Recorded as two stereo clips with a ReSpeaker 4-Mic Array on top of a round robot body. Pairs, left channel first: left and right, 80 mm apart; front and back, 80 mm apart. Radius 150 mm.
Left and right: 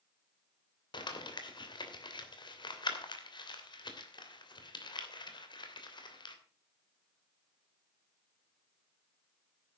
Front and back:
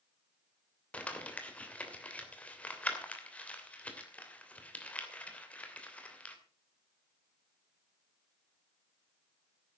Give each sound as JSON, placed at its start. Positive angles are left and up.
{"t": 0.9, "sound": "crumpling", "azimuth_deg": 75, "distance_m": 3.0}